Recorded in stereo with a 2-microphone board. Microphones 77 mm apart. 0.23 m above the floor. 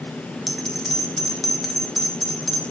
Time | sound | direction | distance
0.5 | a bell | centre (ahead or behind) | 0.6 m